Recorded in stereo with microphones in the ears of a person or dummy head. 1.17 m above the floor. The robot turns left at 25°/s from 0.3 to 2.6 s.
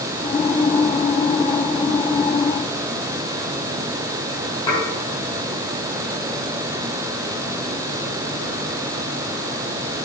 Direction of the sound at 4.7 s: 30° left (ahead or behind).